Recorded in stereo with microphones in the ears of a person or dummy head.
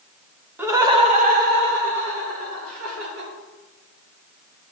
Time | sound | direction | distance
0.6 | laughter | 10° right (ahead or behind) | 1.3 m